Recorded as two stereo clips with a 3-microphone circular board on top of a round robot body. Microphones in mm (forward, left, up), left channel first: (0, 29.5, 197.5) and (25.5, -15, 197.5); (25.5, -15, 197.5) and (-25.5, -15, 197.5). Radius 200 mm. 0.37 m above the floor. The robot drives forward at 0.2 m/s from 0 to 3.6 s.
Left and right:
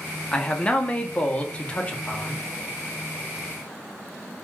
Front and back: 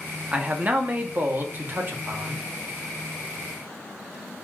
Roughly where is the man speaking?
Behind.